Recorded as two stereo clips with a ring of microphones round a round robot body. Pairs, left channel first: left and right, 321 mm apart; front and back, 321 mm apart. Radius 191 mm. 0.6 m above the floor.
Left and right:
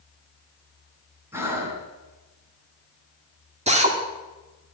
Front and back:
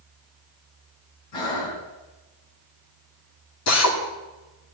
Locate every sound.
1.3 s breathing: 5° right, 3 m
3.7 s a drill: 25° right, 2 m